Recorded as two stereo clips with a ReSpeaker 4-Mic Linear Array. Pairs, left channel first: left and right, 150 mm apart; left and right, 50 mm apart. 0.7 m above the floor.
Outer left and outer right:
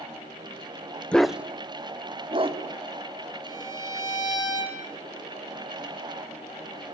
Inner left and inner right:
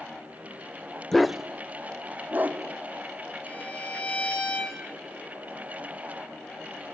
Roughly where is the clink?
I don't hear a clink.